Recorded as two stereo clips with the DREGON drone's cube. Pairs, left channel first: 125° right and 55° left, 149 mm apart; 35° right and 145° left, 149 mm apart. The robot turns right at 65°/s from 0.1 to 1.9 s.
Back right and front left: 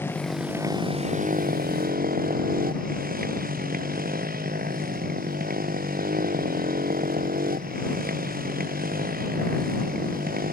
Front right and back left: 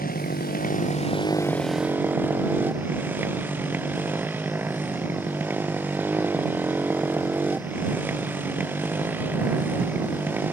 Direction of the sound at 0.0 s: 50° right.